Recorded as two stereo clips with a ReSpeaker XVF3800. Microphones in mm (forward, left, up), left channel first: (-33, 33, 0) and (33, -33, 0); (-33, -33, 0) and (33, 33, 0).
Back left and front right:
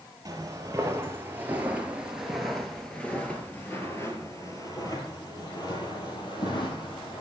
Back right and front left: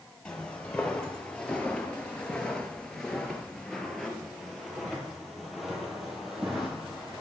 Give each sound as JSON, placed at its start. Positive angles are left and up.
{"t": 0.2, "sound": "footsteps", "azimuth_deg": -65, "distance_m": 1.9}